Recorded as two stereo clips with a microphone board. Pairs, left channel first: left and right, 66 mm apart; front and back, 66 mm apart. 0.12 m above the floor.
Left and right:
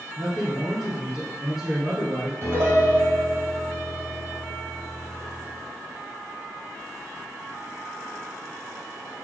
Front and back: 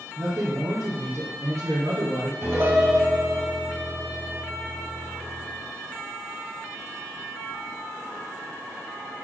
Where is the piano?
130° right, 3.5 m.